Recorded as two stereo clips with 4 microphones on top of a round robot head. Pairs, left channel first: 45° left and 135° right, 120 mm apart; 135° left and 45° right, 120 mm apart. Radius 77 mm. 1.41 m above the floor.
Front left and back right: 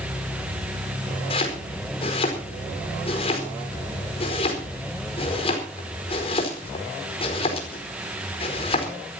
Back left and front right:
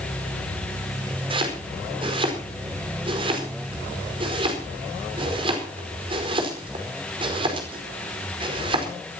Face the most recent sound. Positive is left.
turn(degrees=0)